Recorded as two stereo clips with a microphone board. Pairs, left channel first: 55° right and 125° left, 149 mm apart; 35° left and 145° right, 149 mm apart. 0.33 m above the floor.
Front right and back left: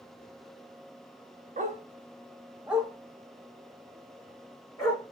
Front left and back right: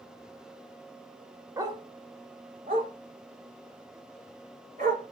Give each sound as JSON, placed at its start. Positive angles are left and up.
{"t": 1.6, "sound": "a dog barking", "azimuth_deg": 145, "distance_m": 0.5}